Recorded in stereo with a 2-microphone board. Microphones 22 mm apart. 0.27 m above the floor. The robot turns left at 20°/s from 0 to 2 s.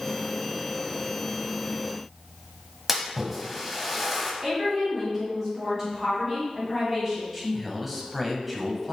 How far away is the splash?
About 1.3 m.